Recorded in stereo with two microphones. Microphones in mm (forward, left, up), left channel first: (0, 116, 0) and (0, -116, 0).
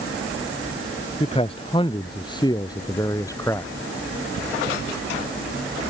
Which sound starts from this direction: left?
A man speaking, at 1.2 s.